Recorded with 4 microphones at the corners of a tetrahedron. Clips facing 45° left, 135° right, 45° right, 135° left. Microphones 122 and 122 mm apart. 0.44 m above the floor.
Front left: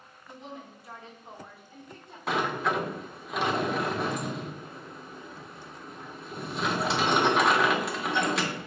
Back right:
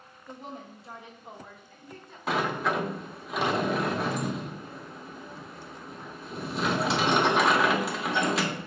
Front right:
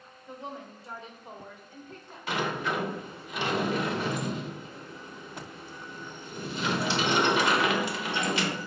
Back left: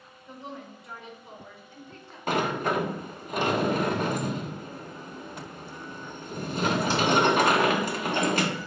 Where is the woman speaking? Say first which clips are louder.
Back right 2 dB, even; 115° right, 1.1 m; by 2.2 s 15° right, 1.2 m.